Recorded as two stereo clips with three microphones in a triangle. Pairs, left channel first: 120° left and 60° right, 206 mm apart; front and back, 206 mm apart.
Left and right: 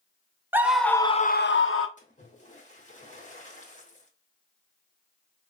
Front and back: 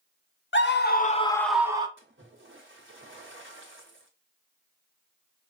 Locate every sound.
0.5 s a scream: 20° left, 1.0 m; by 1.9 s 110° left, 0.8 m
2.0 s a splash: 170° left, 1.2 m